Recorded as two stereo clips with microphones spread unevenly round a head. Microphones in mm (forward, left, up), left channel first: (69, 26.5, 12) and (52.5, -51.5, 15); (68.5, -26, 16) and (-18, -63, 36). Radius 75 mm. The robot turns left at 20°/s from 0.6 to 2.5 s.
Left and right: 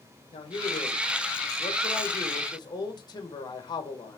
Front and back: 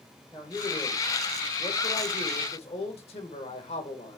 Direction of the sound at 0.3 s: 85° left.